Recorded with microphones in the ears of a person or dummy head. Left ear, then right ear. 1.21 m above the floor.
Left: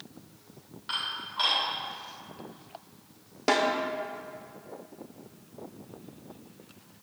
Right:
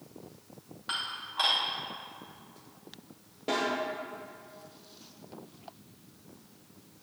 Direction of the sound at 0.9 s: 30° right (ahead or behind).